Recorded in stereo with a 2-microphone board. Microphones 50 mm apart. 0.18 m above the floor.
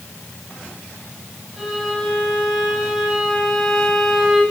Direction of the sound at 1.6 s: 5° right (ahead or behind).